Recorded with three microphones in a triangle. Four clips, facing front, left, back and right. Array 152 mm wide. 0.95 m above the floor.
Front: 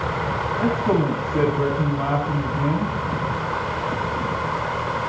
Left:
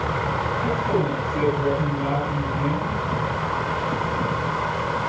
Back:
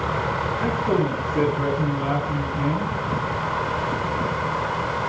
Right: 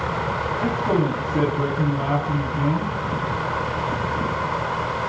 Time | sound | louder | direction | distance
0.6 | a man speaking | right 3 dB, front 2 dB | 30° right | 8 m